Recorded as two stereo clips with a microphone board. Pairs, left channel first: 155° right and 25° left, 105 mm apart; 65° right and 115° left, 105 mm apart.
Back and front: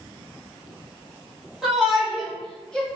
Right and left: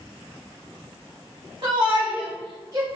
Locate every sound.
1.6 s a shout: 105° left, 1.7 m; by 2.9 s 130° left, 1.3 m